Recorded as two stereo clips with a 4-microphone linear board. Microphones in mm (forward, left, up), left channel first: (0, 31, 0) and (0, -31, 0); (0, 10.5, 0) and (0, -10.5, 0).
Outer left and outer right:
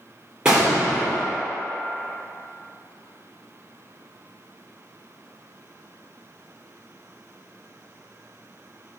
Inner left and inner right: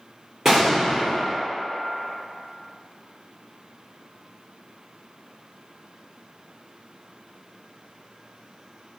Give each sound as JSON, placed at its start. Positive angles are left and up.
{"t": 0.5, "sound": "an explosion", "side_deg": -15, "distance_m": 1.8}